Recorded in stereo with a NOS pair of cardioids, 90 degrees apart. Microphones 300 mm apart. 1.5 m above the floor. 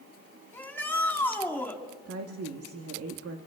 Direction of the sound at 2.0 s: 50° right.